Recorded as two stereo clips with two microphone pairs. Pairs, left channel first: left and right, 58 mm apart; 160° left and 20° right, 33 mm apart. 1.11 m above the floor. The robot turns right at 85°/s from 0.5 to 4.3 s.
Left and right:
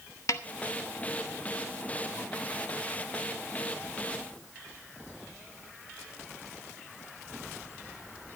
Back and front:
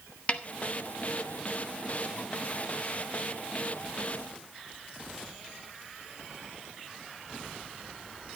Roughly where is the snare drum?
Behind left.